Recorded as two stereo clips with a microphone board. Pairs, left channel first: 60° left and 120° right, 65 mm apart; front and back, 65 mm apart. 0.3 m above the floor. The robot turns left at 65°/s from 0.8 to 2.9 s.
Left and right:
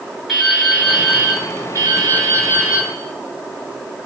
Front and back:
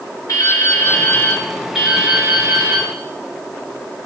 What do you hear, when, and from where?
0.3 s dripping: 30° right, 4.5 m; by 2.9 s 165° right, 4.5 m